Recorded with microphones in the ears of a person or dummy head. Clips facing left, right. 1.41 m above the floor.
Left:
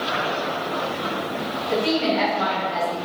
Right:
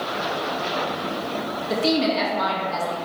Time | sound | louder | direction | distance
1.7 | a woman speaking | even | 55° right (ahead or behind) | 2.5 m